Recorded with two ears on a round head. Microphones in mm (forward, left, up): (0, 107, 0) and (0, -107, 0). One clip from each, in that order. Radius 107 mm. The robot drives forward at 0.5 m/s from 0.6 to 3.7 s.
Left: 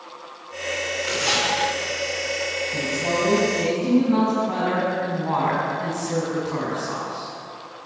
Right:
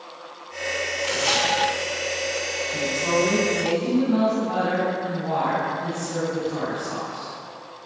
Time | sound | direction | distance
1.0 | tearing paper | 10° right (ahead or behind) | 3 m
2.7 | a woman speaking | 5° left (ahead or behind) | 6.5 m